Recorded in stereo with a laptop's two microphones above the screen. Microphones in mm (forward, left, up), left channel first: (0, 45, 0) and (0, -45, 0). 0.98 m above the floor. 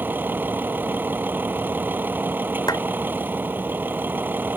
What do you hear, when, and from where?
0.0 s a vehicle: 20° right (ahead or behind)
2.7 s a clap: 45° left (ahead or behind)